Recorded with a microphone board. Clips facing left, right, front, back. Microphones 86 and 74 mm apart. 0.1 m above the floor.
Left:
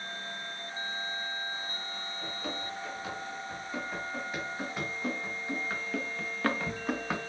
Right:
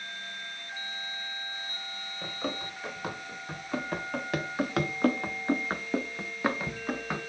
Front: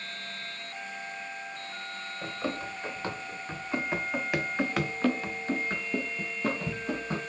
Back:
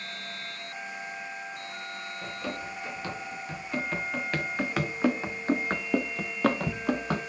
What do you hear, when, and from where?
2.2 s running footsteps: 55° right, 1.8 m; by 7.2 s 175° left, 1.0 m